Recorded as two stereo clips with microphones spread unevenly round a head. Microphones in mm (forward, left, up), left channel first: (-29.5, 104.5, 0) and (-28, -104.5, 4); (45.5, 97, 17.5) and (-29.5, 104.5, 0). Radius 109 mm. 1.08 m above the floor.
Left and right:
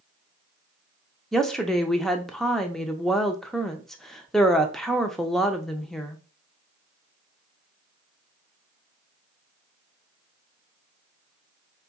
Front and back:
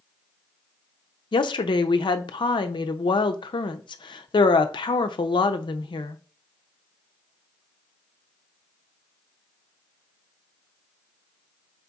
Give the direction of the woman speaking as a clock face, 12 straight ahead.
12 o'clock.